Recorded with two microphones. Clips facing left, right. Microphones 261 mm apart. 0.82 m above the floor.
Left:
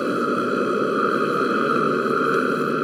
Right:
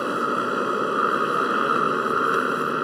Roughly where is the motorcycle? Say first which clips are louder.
Left 5 dB; left.